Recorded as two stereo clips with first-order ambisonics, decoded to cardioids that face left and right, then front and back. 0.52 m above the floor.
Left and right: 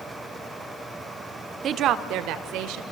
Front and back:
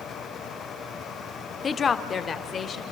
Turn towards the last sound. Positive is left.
turn(degrees=-65)